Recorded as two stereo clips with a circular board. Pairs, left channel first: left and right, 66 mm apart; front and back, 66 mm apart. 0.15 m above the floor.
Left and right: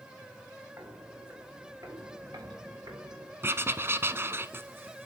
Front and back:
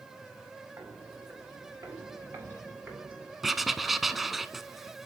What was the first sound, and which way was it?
Footsteps, 135° right.